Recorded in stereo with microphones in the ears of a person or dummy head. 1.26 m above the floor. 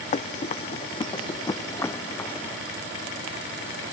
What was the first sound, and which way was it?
Running footsteps, 45° left (ahead or behind).